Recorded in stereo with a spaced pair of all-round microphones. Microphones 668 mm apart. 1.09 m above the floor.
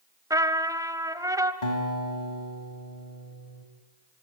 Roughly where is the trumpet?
Centre.